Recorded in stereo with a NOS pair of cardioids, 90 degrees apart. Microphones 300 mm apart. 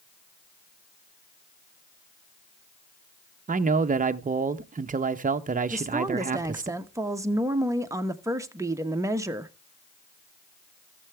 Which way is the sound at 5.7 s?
10° right.